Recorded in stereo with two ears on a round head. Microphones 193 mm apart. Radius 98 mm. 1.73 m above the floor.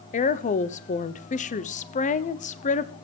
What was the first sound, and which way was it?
A woman speaking, 35° left (ahead or behind).